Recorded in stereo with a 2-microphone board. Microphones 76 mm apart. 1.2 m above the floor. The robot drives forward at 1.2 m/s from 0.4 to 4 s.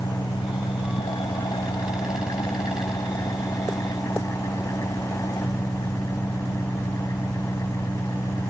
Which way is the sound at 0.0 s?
85° left.